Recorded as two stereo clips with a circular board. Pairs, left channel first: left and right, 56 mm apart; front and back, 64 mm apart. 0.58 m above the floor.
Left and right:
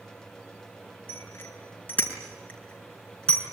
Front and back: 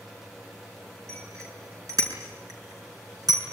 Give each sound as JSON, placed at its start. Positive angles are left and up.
{"t": 1.1, "sound": "a bicycle bell", "azimuth_deg": 140, "distance_m": 5.0}